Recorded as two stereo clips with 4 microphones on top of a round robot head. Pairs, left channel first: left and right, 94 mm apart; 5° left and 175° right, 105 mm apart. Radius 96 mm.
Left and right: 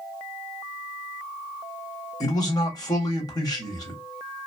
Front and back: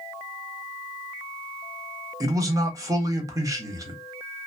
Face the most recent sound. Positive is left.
turn(degrees=135)